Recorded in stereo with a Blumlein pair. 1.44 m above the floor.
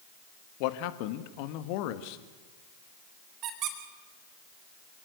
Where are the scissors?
No scissors in this recording.